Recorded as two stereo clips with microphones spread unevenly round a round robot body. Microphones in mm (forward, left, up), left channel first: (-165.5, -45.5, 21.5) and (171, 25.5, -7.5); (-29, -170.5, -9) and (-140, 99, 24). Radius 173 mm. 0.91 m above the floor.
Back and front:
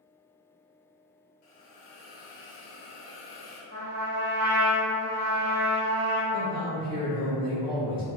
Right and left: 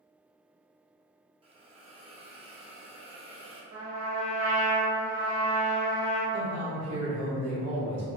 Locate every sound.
1.4 s a hiss: 175° right, 0.7 m
3.7 s a trumpet: 60° left, 0.7 m
6.3 s a man speaking: 80° left, 0.9 m